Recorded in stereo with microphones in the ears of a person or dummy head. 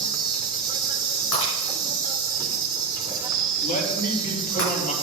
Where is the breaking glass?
65° left (ahead or behind), 6 m.